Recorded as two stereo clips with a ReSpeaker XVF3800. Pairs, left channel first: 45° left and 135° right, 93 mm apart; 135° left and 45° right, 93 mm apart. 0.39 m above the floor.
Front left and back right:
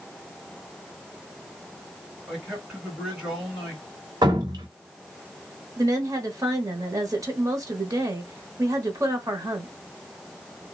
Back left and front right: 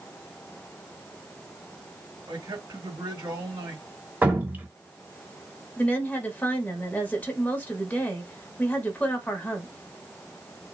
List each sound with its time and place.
2.3 s a man speaking: 55° right, 2.5 m
4.2 s dripping: 115° right, 1.0 m
5.8 s a woman speaking: 160° right, 1.1 m